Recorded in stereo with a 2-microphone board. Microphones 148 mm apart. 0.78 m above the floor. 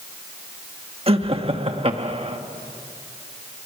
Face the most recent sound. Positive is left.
turn(degrees=-40)  # may be behind; listen again after turning